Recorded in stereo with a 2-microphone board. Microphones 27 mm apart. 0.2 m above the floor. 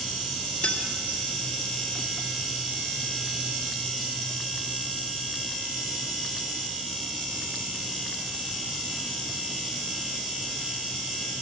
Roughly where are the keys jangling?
Left.